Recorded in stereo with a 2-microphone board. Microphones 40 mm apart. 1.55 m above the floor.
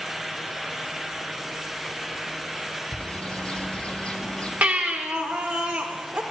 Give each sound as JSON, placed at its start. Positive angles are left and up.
{"t": 2.9, "sound": "a bird", "side_deg": 25, "distance_m": 0.9}
{"t": 4.6, "sound": "a baby crying", "side_deg": -40, "distance_m": 1.4}